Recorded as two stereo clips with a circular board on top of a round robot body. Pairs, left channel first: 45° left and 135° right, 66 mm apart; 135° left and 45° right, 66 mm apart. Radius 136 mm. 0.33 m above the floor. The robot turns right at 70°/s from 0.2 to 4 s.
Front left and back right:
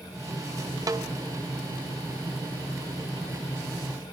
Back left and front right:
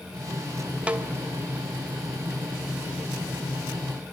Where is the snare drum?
115° right, 2 m; by 1.1 s 100° right, 2 m.